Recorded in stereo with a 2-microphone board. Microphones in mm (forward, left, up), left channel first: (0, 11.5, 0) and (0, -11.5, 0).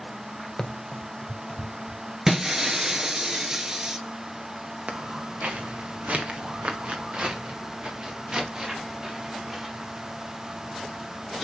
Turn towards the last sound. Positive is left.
turn(degrees=-20)  # may be behind; listen again after turning